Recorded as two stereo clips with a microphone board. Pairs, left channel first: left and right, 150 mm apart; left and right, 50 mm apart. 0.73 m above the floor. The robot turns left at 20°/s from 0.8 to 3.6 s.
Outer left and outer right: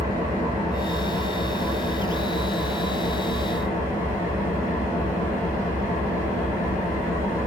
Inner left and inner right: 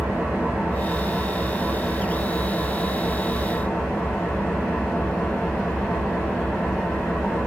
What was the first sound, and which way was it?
An engine running, 145° right.